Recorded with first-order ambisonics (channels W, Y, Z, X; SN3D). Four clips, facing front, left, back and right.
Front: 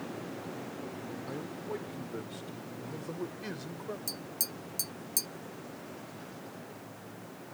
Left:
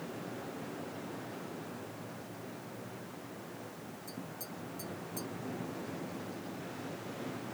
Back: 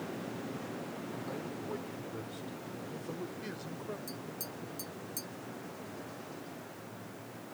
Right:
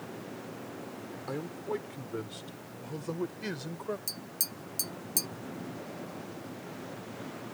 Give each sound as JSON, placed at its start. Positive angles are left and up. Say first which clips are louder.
{"t": 1.3, "sound": "a man speaking", "louder": "right 8 dB, front 2 dB", "azimuth_deg": -80}
{"t": 4.1, "sound": "tapping", "louder": "right 5 dB, front 3 dB", "azimuth_deg": -50}